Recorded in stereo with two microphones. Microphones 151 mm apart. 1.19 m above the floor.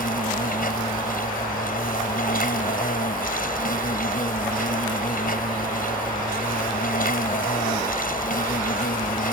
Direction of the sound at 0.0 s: 70° left (ahead or behind).